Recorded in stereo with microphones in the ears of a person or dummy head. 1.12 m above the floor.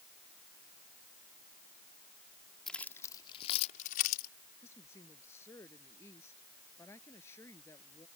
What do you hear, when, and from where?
2.7 s keys jangling: centre (ahead or behind); by 4.3 s 50° left (ahead or behind)
4.6 s a woman speaking: 10° left (ahead or behind)